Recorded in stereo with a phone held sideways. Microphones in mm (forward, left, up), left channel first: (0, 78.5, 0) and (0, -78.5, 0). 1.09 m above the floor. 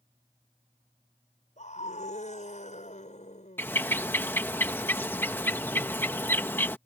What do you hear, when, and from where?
1.6 s a scream: 50° left (ahead or behind)
3.6 s a bird: 15° left (ahead or behind)